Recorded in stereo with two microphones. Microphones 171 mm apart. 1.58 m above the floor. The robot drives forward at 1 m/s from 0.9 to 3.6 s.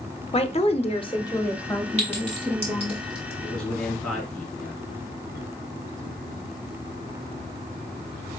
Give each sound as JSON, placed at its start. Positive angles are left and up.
{"t": 0.3, "sound": "a woman speaking", "side_deg": 35, "distance_m": 0.6}
{"t": 2.0, "sound": "a clink", "side_deg": -40, "distance_m": 3.0}
{"t": 3.4, "sound": "a man speaking", "side_deg": 5, "distance_m": 3.0}